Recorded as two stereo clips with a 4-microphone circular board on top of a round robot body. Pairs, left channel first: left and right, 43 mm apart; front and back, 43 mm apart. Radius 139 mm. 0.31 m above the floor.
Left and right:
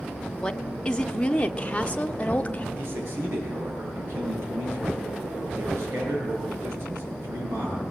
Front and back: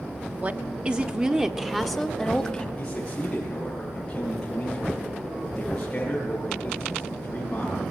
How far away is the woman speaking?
About 1.7 m.